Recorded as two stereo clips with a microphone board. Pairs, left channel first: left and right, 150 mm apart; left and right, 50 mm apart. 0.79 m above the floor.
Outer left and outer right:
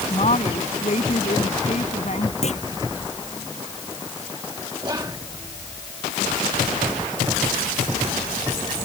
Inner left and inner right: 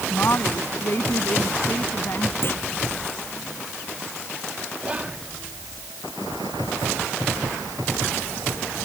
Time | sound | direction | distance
0.1 | a woman speaking | 50° left (ahead or behind) | ?
2.4 | a clunk | 45° left (ahead or behind) | ?
4.8 | whispering | 25° right (ahead or behind) | ?